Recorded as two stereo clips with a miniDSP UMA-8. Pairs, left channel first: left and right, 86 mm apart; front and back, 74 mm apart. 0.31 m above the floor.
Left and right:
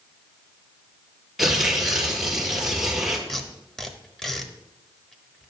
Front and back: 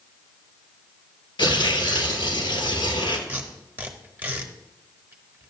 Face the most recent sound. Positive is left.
turn(degrees=170)